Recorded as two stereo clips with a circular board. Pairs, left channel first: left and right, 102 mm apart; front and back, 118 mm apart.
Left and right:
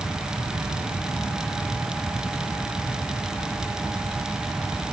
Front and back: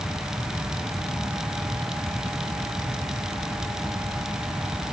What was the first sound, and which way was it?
Only background noise.